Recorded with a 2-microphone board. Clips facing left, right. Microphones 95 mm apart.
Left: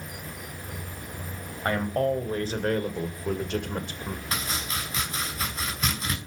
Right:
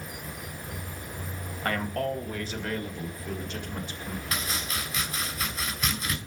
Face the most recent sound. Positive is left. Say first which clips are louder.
# left 1 dB
turn(degrees=30)  # may be behind; listen again after turning